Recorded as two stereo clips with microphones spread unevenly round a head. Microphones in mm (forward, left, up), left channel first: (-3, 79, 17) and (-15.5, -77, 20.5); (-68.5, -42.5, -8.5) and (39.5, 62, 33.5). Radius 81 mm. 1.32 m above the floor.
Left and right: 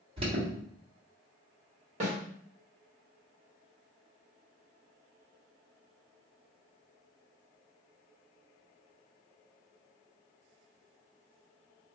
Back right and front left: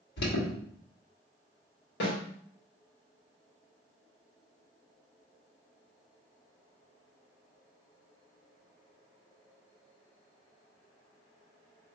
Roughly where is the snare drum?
Behind right.